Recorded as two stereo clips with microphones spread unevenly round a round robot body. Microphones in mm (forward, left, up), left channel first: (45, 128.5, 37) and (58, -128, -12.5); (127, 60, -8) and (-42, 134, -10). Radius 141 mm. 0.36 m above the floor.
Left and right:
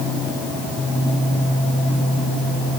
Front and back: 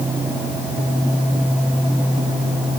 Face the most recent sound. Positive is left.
No sound to turn to.